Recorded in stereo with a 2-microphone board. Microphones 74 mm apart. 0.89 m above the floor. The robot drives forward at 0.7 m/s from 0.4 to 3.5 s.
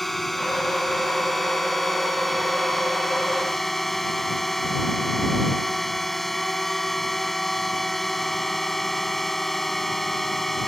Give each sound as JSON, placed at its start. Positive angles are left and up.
{"t": 0.0, "sound": "a drone", "side_deg": 0}